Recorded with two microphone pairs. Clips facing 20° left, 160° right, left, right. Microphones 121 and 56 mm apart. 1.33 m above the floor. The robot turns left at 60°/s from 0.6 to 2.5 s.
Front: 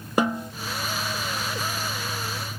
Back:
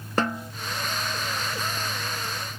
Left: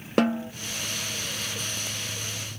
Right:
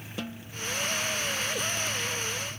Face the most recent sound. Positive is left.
turn(degrees=-15)